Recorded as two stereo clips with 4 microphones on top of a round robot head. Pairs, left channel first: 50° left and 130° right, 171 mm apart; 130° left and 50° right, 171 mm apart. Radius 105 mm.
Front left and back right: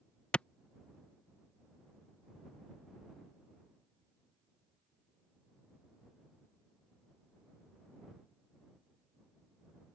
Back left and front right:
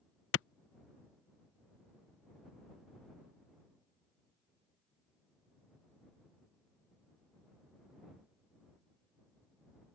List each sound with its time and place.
0.3 s a clap: 130° left